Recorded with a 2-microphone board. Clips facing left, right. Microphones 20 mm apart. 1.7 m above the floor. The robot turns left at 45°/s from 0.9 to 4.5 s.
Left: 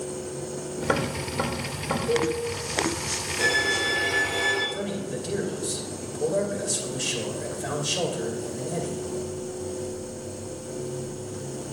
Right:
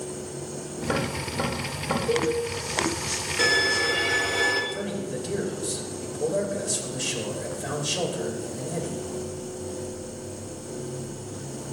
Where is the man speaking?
Centre (ahead or behind), 2.5 m.